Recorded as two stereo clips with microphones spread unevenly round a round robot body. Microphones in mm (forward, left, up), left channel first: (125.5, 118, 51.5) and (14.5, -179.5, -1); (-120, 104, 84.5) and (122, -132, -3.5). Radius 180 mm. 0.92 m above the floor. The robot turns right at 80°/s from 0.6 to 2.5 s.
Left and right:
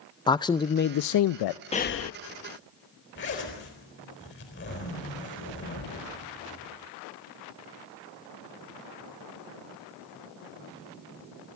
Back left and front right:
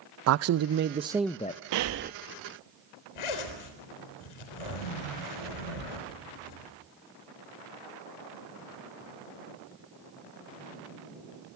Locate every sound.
0.3 s a man speaking: 15° right, 0.5 m; by 1.6 s 70° left, 0.5 m
1.7 s breathing: 5° right, 0.7 m; by 2.1 s 25° left, 0.7 m
3.1 s a zipper: 135° left, 4 m